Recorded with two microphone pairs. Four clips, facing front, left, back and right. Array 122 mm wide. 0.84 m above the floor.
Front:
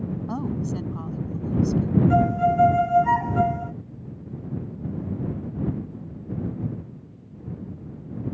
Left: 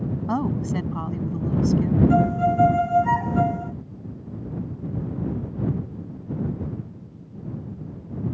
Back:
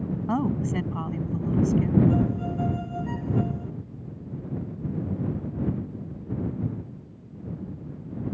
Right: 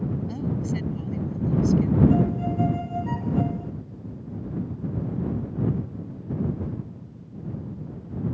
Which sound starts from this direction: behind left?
A woman speaking, at 0.3 s.